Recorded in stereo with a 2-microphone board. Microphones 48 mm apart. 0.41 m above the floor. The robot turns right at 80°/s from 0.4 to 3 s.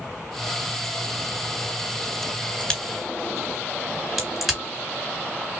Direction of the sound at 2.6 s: 25° left (ahead or behind).